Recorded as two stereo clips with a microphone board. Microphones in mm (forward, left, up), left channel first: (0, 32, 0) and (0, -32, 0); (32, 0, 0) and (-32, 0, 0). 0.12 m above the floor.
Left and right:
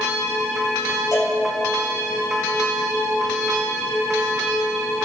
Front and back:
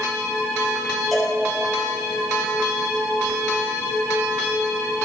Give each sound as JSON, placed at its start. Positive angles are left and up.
{"t": 1.1, "sound": "a cowbell", "azimuth_deg": 90, "distance_m": 3.0}